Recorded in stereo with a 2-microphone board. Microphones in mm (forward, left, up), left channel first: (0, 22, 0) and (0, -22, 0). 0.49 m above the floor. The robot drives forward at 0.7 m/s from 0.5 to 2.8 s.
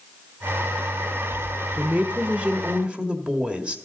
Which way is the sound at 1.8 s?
35° right (ahead or behind).